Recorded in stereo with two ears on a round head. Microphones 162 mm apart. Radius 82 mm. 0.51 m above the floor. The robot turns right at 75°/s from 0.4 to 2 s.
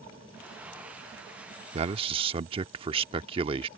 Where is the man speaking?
35° right (ahead or behind); by 3.7 s 30° right (ahead or behind).